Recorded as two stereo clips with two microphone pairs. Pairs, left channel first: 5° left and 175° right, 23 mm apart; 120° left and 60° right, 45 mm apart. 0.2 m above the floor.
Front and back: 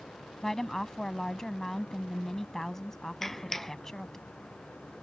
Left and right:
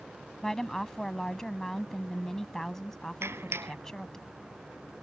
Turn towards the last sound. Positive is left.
turn(degrees=-75)